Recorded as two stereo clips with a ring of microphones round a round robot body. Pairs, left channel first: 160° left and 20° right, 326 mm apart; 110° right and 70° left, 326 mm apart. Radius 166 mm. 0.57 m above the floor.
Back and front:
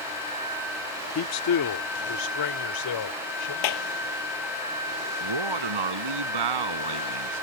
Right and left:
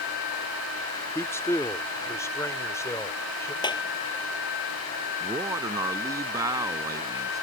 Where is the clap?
170° left.